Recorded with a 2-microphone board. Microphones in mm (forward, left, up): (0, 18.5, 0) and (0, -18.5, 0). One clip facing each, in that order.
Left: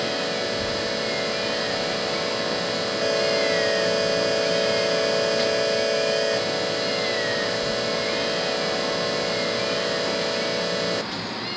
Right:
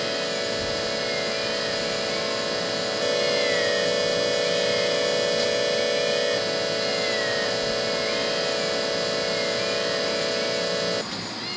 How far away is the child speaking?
About 9.5 m.